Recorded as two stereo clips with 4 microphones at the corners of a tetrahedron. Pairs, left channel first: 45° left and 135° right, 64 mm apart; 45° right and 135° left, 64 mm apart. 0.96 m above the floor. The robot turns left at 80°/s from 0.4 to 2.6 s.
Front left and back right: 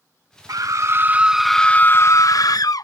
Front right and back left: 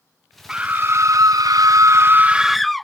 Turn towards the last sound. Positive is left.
turn(degrees=45)